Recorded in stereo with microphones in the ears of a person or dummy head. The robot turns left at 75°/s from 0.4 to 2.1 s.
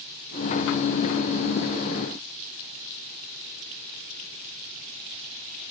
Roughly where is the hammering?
I don't hear hammering.